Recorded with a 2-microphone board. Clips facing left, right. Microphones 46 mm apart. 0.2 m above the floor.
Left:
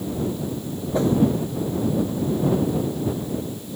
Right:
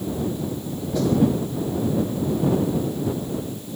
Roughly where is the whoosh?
Left.